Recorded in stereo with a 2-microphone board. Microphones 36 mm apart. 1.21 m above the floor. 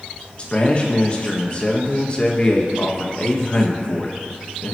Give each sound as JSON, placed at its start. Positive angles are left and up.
{"t": 0.4, "sound": "a man speaking", "side_deg": 30, "distance_m": 1.8}